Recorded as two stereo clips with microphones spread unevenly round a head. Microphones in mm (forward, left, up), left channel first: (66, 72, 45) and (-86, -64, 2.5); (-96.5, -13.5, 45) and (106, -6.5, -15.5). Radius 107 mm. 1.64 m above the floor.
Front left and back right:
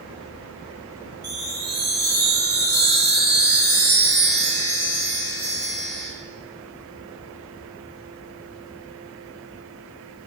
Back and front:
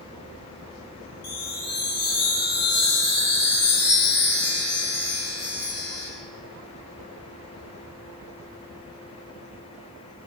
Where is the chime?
Straight behind, 4.5 m.